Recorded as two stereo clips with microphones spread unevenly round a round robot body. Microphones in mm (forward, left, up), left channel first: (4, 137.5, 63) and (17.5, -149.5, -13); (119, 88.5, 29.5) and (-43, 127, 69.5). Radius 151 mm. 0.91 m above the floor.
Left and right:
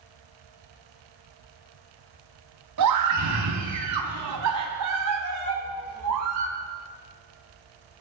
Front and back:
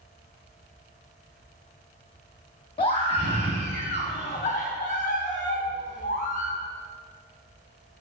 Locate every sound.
2.8 s a scream: 70° right, 2 m; by 6.5 s 60° right, 4 m